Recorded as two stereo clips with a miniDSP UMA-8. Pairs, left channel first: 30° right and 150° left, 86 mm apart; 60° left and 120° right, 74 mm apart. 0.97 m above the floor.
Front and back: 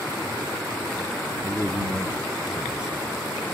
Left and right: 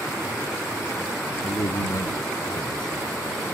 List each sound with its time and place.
1.4 s a man speaking: 80° left; by 3.3 s 65° left